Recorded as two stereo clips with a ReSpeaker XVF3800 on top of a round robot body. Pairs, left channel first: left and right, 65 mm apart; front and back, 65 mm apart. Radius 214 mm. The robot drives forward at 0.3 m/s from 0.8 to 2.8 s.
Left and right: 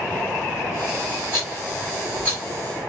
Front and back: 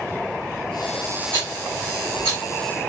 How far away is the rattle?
About 0.6 m.